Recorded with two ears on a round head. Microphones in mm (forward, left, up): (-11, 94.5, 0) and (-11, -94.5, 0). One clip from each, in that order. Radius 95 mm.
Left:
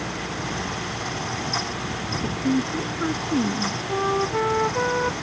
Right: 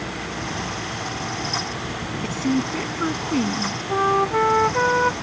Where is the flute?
45° right (ahead or behind).